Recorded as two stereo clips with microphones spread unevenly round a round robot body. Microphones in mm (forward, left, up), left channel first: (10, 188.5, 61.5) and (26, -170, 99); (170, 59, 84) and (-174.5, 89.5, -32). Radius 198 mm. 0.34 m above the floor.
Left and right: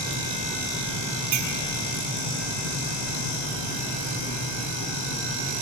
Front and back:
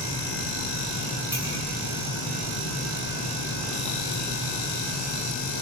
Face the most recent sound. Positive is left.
turn(degrees=-105)